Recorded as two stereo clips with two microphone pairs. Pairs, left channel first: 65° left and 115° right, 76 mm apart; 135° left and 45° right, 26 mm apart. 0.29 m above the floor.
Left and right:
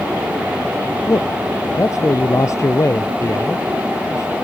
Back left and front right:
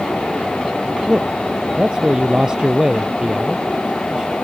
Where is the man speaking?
15° left.